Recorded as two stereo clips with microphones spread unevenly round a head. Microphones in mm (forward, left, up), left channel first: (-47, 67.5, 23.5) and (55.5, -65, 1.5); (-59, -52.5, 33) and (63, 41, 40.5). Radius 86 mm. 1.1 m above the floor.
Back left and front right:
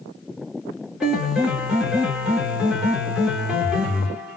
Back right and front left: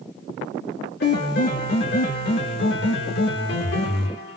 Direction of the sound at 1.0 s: 135° right.